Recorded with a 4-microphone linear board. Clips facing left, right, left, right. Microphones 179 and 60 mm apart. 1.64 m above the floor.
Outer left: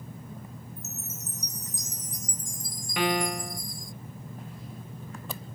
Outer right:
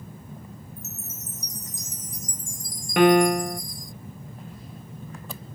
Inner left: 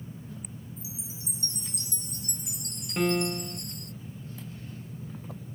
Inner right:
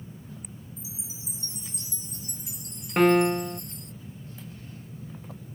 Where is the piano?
55° right (ahead or behind).